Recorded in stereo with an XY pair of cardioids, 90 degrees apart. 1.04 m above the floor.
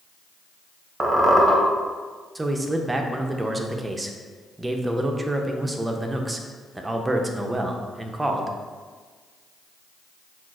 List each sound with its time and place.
1.0 s a squeak: 30° right, 0.9 m
2.4 s a man speaking: 15° right, 0.6 m